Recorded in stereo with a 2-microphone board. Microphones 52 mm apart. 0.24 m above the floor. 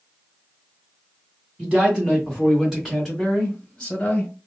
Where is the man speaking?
20° right (ahead or behind), 2.5 m; by 4.3 s 25° left (ahead or behind), 1.7 m.